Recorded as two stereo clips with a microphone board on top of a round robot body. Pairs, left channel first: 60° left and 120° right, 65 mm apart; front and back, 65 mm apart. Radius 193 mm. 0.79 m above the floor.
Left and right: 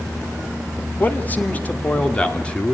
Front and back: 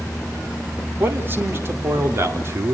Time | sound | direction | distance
1.0 | a man speaking | 120° left | 3 m